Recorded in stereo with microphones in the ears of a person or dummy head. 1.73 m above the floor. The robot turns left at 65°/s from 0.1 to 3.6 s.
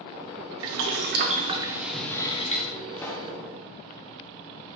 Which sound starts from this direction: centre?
A pop, at 3.0 s.